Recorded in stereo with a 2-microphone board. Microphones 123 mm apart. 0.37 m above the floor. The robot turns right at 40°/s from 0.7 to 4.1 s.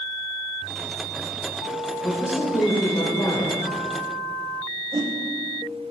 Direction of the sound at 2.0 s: 30° left.